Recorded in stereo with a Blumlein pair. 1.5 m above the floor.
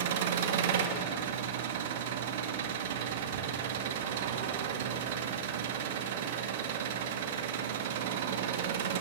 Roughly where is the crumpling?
I don't hear crumpling.